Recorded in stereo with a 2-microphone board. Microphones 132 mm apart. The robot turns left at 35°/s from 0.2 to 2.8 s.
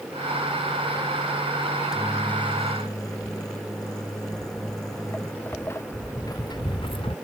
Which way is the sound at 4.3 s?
Centre (ahead or behind).